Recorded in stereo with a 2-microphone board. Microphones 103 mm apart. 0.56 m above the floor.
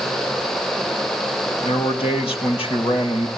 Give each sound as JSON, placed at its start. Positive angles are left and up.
{"t": 1.6, "sound": "a man speaking", "side_deg": 75, "distance_m": 3.0}